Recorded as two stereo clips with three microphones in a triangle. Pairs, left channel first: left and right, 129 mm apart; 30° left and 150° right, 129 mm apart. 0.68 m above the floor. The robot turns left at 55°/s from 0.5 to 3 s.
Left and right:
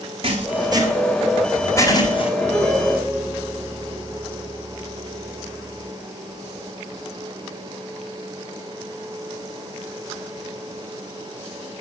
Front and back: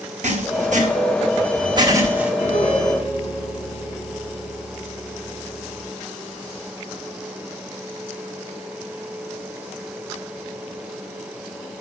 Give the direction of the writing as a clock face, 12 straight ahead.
4 o'clock.